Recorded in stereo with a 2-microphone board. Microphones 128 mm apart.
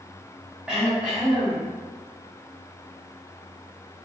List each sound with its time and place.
0.7 s throat clearing: 5° right (ahead or behind), 0.8 m